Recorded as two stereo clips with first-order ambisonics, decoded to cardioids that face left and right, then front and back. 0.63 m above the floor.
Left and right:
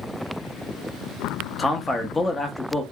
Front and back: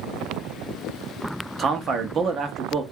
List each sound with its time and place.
1.6 s a man speaking: 155° left, 0.5 m